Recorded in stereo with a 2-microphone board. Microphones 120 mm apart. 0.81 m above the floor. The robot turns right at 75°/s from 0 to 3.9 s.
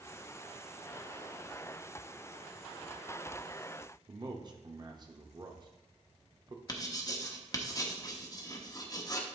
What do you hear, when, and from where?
4.1 s a man speaking: 35° right (ahead or behind), 0.9 m
6.7 s writing: 30° left (ahead or behind), 0.9 m